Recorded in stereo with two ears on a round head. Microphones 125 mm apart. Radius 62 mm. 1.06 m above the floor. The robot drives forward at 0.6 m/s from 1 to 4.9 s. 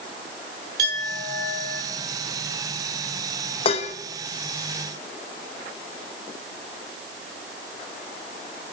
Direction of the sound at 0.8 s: 25° right (ahead or behind).